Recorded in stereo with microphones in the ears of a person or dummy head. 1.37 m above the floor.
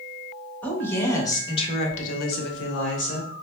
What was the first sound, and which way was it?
A woman speaking, 10° left (ahead or behind).